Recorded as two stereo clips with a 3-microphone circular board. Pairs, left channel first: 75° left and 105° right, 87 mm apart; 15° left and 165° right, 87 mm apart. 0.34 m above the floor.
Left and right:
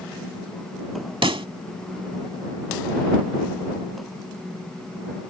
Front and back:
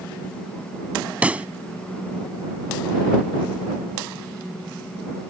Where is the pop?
90° right.